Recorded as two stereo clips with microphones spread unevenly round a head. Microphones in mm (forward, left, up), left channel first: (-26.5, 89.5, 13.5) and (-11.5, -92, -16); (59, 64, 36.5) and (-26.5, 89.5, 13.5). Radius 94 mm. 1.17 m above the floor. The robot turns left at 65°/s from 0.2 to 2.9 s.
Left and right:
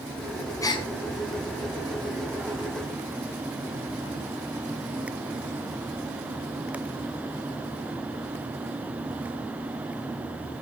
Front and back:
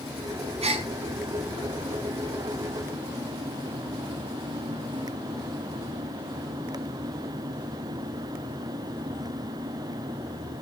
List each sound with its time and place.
0.6 s a gasp: 165° left, 2 m; by 0.9 s 150° left, 2 m